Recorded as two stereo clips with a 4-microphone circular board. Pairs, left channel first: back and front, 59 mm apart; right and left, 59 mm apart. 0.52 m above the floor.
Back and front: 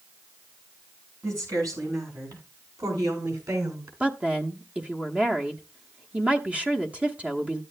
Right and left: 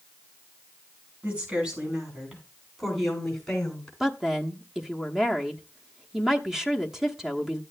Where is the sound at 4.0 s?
20° left, 1.1 m.